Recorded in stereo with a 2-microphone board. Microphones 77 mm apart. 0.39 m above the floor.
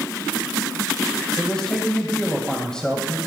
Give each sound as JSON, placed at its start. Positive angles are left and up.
{"t": 1.4, "sound": "a man speaking", "side_deg": 10, "distance_m": 1.6}